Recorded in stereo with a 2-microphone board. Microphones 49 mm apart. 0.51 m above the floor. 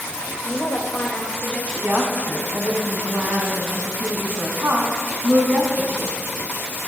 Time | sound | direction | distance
0.4 | a woman speaking | 40° left (ahead or behind) | 1.6 m
1.8 | a woman speaking | 55° right (ahead or behind) | 4 m